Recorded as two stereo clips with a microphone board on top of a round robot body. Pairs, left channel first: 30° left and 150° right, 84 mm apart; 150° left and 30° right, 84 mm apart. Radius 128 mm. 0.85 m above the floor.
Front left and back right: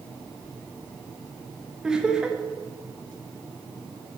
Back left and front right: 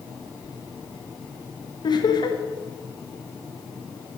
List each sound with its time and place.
1.8 s laughter: 130° left, 1.7 m